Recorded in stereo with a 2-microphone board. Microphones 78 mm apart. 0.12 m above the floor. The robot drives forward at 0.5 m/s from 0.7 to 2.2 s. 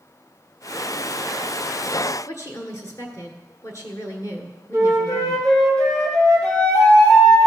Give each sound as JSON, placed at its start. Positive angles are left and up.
{"t": 2.3, "sound": "a woman speaking", "side_deg": 40, "distance_m": 1.6}
{"t": 4.7, "sound": "a flute", "side_deg": 15, "distance_m": 3.5}